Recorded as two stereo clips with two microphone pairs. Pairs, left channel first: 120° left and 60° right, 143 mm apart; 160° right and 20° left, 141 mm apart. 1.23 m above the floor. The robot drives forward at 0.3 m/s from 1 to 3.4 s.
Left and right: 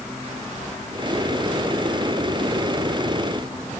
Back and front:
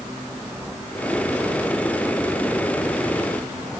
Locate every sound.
Only background noise.